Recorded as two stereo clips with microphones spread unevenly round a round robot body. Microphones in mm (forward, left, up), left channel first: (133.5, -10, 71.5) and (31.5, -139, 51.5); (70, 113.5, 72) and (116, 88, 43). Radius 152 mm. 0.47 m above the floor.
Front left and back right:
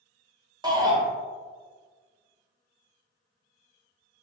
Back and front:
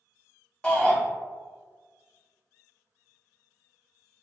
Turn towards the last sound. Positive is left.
turn(degrees=-105)